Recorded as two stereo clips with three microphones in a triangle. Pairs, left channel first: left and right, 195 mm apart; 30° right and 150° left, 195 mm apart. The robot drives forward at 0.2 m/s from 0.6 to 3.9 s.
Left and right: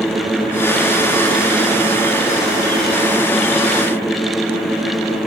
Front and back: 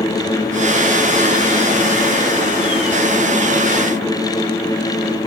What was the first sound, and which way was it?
Only background noise.